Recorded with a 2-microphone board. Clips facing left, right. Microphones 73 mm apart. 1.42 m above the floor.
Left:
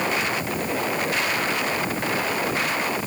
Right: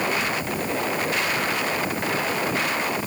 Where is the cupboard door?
I don't hear a cupboard door.